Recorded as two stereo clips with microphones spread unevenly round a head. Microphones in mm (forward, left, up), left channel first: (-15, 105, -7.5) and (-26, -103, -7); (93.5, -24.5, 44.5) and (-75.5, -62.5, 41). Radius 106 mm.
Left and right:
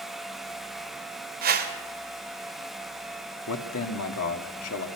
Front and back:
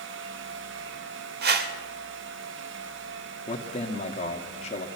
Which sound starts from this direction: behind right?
A whoosh, at 1.4 s.